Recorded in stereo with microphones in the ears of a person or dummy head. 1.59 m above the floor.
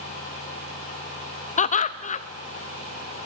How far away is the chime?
No chime in this recording.